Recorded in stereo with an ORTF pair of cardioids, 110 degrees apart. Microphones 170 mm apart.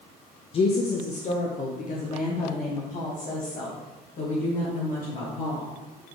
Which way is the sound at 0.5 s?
35° left.